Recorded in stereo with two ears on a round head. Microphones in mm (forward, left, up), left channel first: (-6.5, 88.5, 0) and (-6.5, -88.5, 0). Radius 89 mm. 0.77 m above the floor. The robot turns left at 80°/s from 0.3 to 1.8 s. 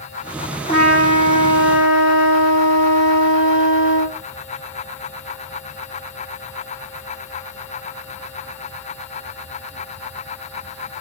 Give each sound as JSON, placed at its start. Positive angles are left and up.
{"t": 0.7, "sound": "a trumpet", "azimuth_deg": 145, "distance_m": 2.5}